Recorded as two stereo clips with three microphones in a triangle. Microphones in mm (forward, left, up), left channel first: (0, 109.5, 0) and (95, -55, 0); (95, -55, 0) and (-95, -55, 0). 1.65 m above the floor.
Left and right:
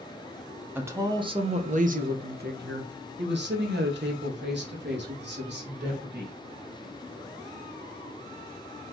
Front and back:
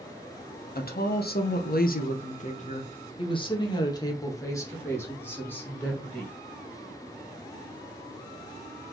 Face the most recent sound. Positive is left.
turn(degrees=-85)